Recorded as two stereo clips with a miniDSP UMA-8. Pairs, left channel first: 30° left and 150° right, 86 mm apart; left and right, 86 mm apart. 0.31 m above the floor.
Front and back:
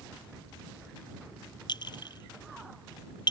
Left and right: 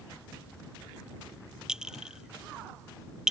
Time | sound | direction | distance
1.7 | a clink | 5° right | ?